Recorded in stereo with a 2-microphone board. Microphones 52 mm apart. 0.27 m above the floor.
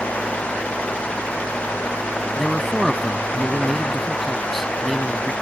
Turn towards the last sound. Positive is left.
turn(degrees=0)  # may be behind; listen again after turning